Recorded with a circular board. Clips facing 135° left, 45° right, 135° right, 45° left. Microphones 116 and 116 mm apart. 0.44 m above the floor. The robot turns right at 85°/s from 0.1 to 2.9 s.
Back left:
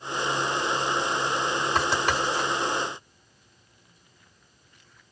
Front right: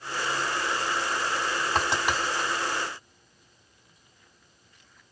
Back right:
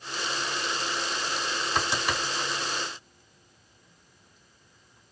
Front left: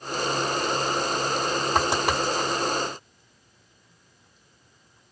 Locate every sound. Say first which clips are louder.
1.8 s writing: back left 1 dB, front left 5 dB; 5° left, 3.5 m; by 2.5 s 70° left, 3.5 m